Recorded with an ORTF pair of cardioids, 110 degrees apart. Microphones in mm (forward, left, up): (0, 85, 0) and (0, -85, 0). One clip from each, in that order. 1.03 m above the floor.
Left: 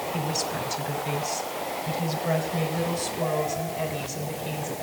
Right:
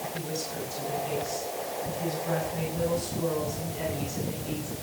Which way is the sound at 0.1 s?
45° left.